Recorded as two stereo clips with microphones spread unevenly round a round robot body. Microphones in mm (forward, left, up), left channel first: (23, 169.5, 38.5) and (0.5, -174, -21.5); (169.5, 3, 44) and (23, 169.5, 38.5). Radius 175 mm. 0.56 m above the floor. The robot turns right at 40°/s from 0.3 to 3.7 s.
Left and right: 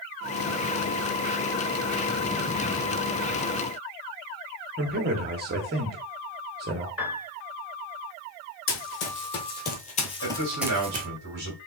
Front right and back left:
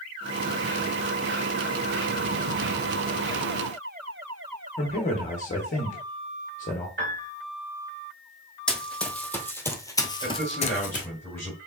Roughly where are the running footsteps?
Ahead left.